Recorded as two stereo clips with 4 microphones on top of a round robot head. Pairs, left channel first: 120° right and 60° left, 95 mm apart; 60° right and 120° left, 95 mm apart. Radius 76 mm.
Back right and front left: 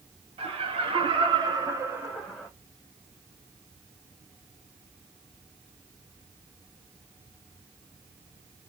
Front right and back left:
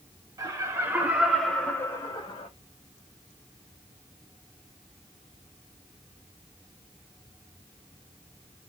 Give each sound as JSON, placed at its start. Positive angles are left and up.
{"t": 0.4, "sound": "laughter", "azimuth_deg": 65, "distance_m": 1.6}